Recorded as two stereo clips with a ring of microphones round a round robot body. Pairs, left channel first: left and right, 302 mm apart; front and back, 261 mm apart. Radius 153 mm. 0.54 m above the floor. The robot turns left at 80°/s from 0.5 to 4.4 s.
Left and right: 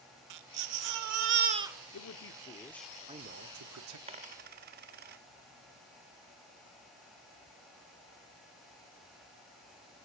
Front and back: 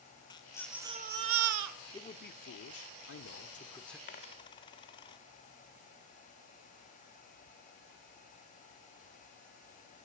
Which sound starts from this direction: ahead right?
A dropped coin, at 4.1 s.